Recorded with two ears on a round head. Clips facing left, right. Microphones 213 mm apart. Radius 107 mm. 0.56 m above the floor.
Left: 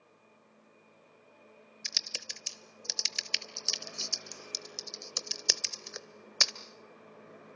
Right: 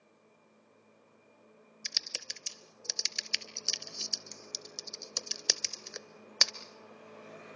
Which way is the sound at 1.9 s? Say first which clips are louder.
Even; centre (ahead or behind).